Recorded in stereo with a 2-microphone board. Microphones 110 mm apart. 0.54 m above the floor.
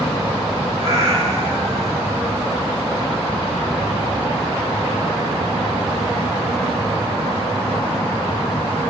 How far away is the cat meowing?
About 3.5 m.